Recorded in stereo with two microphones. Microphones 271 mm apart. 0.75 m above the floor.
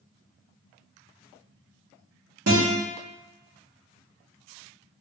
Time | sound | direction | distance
2.5 | a guitar | 65° right (ahead or behind) | 1.2 m